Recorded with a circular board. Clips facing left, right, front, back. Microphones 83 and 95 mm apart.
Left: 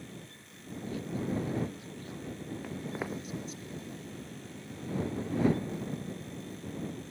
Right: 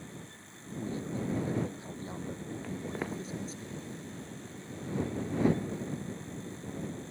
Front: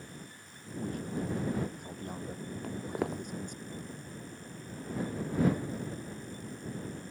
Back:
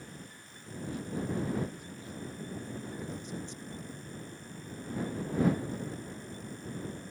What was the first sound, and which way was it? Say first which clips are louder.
A man speaking: right 1 dB, front 1 dB; 35° right.